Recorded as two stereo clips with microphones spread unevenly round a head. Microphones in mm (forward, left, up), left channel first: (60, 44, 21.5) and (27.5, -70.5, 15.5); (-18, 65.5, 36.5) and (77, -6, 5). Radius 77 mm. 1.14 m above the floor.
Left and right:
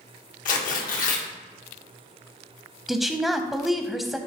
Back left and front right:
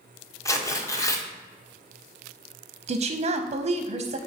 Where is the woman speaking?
20° right, 0.6 m.